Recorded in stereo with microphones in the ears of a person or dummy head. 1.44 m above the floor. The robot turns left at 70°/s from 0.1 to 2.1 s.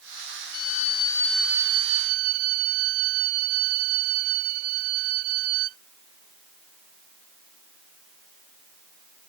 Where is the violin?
60° left; by 5.8 s 50° right.